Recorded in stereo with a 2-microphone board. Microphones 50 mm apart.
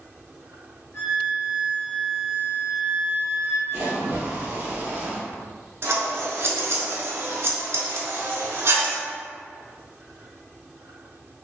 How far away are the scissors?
About 0.8 m.